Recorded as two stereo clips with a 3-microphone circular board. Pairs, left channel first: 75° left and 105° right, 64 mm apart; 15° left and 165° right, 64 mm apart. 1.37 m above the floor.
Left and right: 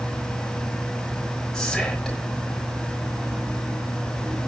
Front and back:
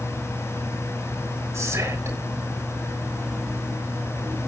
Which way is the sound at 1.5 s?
155° left.